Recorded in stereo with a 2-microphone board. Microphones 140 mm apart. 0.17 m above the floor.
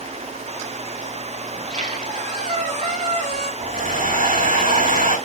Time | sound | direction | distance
1.5 | a squeak | 55° right (ahead or behind) | 3 m
3.6 | a hair dryer | 75° right (ahead or behind) | 5.5 m